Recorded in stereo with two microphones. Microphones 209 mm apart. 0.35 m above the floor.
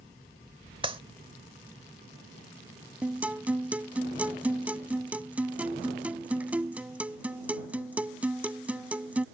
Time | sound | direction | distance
0.8 | a clap | 25° right (ahead or behind) | ?
3.0 | a guitar | 5° right (ahead or behind) | ?